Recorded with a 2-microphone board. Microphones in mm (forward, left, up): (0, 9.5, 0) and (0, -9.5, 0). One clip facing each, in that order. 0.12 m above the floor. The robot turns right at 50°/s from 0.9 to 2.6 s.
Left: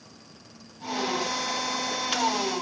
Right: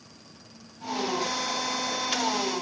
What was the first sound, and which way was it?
Only background noise.